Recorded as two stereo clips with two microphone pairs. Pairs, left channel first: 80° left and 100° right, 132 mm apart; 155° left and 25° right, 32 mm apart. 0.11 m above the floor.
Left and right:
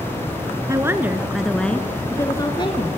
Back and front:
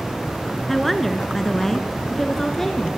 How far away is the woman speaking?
About 1.8 m.